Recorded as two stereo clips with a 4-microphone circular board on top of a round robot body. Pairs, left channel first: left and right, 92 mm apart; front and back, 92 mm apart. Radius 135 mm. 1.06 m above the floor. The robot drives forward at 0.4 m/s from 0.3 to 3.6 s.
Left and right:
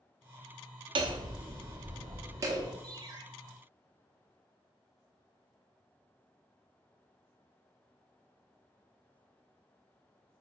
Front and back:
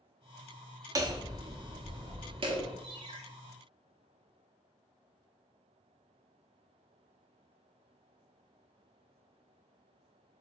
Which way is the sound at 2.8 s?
135° right.